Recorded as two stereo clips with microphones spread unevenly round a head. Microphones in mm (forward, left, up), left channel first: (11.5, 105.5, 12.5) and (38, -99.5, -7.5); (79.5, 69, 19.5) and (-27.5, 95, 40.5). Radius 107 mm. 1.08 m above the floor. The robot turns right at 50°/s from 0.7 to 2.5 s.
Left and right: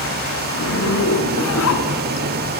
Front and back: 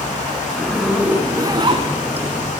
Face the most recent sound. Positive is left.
turn(degrees=165)